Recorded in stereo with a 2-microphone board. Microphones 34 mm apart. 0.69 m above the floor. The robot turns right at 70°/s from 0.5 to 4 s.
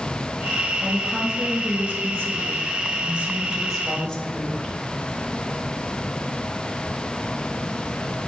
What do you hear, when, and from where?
0.8 s a woman speaking: 160° left, 3.5 m; by 4.8 s 25° left, 3.5 m